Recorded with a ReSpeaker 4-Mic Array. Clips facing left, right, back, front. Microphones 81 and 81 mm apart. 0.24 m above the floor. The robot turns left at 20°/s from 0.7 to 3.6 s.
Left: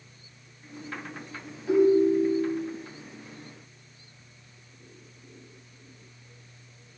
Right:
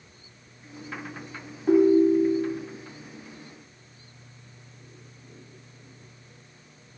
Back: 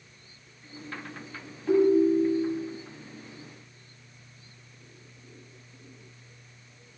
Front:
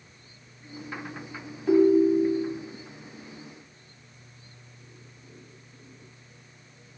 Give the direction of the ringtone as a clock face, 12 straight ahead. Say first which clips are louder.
Right 2 dB, front 2 dB; 3 o'clock.